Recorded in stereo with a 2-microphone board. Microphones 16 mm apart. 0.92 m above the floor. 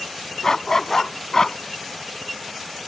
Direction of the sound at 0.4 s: 30° left (ahead or behind).